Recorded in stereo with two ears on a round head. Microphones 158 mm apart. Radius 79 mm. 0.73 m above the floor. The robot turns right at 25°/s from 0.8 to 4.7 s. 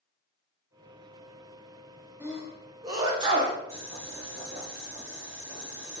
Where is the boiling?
35° right (ahead or behind), 1.1 m; by 6.0 s 25° right (ahead or behind), 1.1 m.